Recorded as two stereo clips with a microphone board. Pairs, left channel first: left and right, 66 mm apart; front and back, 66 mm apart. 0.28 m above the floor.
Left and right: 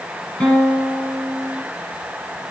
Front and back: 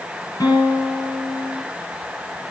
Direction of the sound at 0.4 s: 15° left.